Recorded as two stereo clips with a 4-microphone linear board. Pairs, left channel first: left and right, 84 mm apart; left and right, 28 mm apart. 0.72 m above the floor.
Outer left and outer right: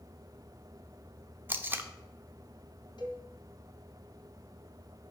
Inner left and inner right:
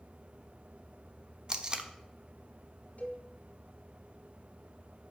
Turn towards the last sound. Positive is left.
turn(degrees=60)  # may be behind; listen again after turning